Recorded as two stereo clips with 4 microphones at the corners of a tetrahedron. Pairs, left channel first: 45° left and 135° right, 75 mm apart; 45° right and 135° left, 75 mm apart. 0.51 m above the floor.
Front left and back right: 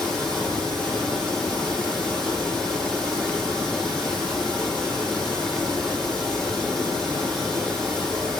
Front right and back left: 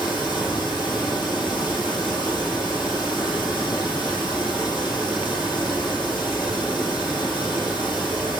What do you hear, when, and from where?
0.0 s running water: 35° right, 6.5 m